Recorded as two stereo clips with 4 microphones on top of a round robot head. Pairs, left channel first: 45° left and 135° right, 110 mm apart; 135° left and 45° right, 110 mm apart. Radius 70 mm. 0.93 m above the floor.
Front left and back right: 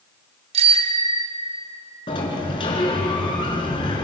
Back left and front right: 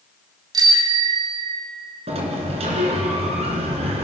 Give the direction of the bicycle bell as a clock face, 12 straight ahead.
3 o'clock.